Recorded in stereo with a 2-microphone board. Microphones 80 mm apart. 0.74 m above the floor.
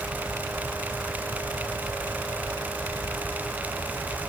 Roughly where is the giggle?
I don't hear a giggle.